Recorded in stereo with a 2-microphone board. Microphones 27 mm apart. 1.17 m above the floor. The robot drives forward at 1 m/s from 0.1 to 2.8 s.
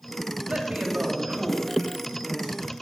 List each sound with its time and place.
0.5 s a woman speaking: 65° right (ahead or behind), 2.5 m; by 2.7 s 30° right (ahead or behind), 4 m